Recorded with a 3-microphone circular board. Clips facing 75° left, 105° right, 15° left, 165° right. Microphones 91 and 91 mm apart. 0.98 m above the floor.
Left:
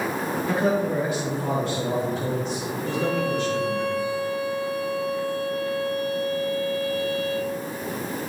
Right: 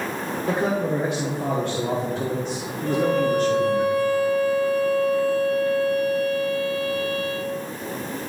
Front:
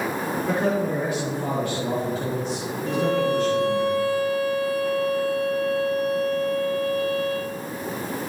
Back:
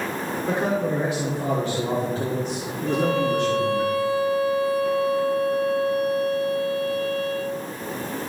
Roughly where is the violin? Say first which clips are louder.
Right 5 dB, even; right.